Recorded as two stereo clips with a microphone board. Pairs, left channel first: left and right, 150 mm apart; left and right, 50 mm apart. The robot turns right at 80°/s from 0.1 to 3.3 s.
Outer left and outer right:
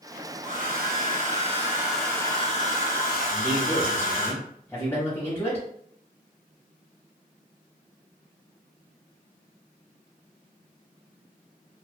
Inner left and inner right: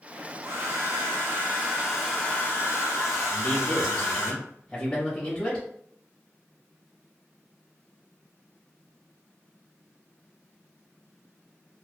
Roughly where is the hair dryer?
Behind right.